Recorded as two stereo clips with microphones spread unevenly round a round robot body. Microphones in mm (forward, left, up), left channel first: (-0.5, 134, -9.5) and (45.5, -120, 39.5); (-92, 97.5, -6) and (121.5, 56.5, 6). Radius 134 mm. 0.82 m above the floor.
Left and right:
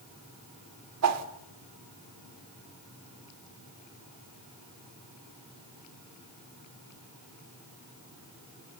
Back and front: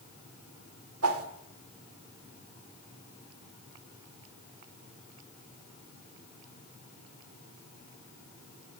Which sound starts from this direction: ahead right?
A whoosh, at 1.0 s.